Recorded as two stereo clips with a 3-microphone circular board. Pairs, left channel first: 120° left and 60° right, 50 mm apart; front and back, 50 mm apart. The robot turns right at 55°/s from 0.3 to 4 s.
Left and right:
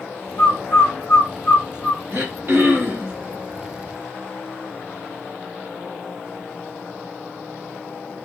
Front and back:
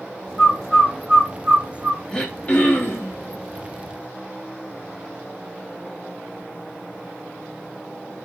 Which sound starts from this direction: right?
Throat clearing, at 2.1 s.